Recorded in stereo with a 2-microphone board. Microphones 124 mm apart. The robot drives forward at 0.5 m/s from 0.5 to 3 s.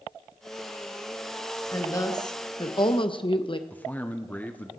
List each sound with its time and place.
1.7 s a woman speaking: 25° left (ahead or behind), 1.6 m; by 3.6 s 45° left (ahead or behind), 1.0 m
3.7 s a man speaking: 15° left (ahead or behind), 1.0 m